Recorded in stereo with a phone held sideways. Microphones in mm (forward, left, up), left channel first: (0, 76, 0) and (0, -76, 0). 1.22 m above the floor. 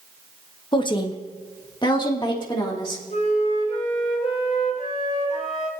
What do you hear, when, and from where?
0.7 s a woman speaking: 30° left (ahead or behind), 1.2 m
3.1 s a flute: 50° left (ahead or behind), 3 m